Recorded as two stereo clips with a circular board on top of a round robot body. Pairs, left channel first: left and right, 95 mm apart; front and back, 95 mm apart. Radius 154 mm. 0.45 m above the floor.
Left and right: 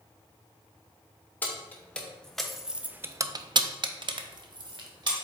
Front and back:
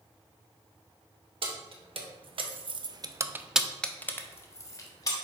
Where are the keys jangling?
160° left, 1.1 m; by 5.1 s 50° right, 1.1 m.